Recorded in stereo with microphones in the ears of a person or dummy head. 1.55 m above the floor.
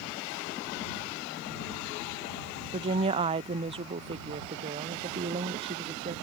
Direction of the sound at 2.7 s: 25° right (ahead or behind).